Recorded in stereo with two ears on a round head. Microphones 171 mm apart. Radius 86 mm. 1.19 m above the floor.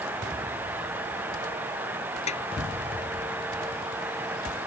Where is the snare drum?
40° left (ahead or behind).